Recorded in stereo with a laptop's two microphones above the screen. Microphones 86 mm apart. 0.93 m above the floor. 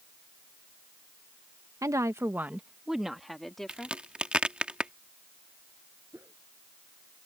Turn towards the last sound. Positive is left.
turn(degrees=-30)  # may be behind; listen again after turning